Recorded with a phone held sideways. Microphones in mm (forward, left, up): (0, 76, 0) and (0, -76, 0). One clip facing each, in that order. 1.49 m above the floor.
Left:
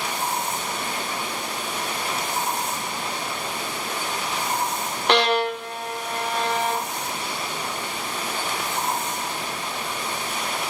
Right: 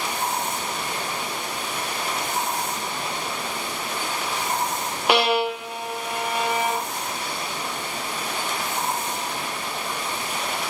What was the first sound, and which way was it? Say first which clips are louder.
A violin: even; 10° right (ahead or behind).